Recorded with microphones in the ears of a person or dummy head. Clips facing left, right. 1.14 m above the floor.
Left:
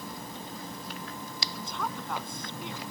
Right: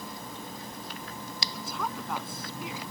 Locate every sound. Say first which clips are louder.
1.7 s a woman speaking: right 1 dB; 5° right (ahead or behind)